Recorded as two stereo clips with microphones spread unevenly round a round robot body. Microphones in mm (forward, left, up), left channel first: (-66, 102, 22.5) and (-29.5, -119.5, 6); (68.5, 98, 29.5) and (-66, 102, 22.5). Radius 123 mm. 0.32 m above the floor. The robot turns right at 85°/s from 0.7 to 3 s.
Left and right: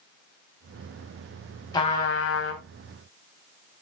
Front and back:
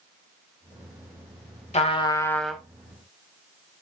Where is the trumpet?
25° left, 2 m; by 2.6 s 100° left, 2 m.